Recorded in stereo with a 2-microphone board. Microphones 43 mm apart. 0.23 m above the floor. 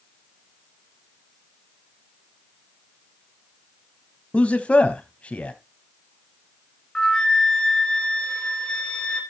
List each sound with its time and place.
4.3 s a man speaking: 30° left (ahead or behind), 1.2 m
7.0 s a flute: 10° left (ahead or behind), 3 m